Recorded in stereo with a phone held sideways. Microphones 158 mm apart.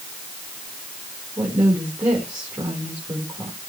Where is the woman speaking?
25° right (ahead or behind), 4 m.